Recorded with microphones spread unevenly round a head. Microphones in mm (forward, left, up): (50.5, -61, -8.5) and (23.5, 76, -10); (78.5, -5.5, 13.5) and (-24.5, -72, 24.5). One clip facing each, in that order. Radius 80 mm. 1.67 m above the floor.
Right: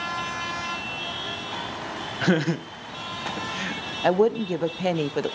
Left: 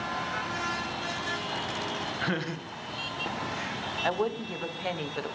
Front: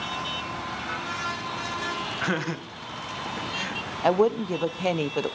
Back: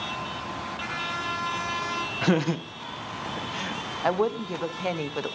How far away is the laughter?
About 0.8 m.